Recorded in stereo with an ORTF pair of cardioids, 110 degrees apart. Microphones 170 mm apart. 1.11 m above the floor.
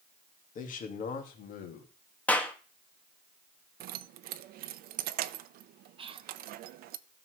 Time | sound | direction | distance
0.6 | a man speaking | 60° left | 2 m
2.3 | a clap | 10° left | 1.4 m
3.8 | keys jangling | 70° right | 0.6 m
6.0 | whispering | 35° right | 1.1 m